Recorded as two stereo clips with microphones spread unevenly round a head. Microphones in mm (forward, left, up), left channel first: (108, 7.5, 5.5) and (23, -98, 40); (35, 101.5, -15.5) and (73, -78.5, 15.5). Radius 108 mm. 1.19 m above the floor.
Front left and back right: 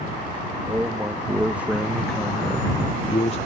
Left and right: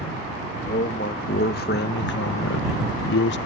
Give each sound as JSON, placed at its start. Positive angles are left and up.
{"t": 0.7, "sound": "a man speaking", "azimuth_deg": 155}